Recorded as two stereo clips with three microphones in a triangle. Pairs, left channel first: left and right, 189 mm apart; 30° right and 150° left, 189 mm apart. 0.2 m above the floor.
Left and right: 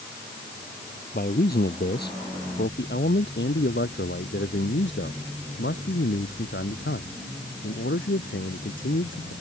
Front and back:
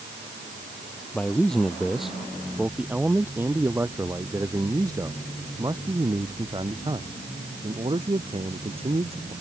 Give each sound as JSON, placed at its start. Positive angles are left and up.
{"t": 1.1, "sound": "a man speaking", "azimuth_deg": 55}